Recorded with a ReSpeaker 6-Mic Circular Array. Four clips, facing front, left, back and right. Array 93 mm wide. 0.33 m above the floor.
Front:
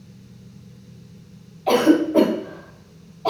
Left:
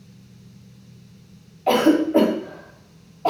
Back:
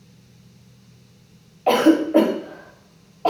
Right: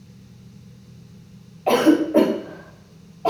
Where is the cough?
170° right, 1.7 m.